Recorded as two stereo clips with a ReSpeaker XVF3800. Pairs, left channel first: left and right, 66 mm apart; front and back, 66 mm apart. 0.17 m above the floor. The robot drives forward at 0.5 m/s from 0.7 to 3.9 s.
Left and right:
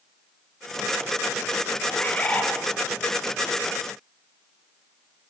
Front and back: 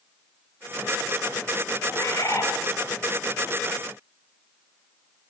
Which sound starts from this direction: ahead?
A bird, at 1.9 s.